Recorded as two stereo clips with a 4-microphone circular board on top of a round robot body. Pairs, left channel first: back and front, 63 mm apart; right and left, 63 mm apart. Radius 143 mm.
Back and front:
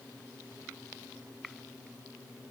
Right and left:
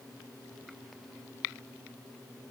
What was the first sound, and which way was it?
Only background noise.